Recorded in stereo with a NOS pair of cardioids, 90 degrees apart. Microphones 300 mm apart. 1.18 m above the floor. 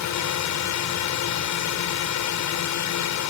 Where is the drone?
65° left.